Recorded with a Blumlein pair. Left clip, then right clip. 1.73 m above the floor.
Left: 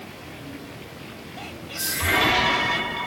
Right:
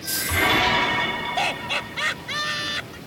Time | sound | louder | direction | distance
1.4 | laughter | right 7 dB | 55° right | ?